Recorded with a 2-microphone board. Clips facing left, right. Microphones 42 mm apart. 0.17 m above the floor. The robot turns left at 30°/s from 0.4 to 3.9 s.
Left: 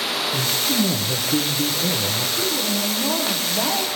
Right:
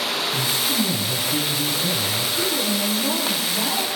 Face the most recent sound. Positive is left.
turn(degrees=120)